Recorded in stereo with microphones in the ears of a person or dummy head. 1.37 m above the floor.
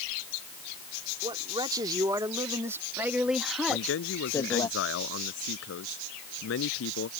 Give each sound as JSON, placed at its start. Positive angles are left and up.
{"t": 1.2, "sound": "a man speaking", "side_deg": -25}
{"t": 3.7, "sound": "a man speaking", "side_deg": 85}